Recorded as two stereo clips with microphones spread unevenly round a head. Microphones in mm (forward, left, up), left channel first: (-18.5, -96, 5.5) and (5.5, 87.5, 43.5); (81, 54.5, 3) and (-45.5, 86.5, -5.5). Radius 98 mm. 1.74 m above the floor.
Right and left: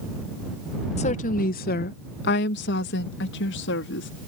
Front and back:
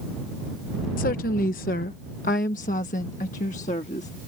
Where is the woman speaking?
35° right; by 4.1 s 70° right.